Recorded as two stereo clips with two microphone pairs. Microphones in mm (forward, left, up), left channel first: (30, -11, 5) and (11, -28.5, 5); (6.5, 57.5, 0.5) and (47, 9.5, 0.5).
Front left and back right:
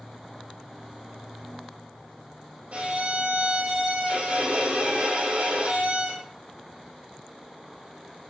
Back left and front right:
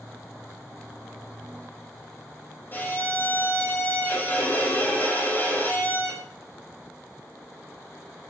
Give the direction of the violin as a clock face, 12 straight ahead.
6 o'clock.